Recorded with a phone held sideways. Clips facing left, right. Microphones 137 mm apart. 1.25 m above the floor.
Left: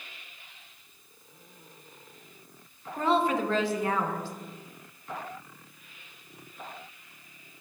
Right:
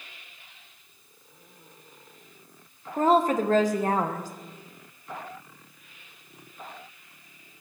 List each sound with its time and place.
3.0 s a woman speaking: 40° right (ahead or behind), 0.7 m